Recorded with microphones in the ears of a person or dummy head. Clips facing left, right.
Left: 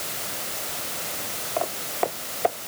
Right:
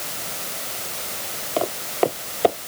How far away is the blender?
I don't hear a blender.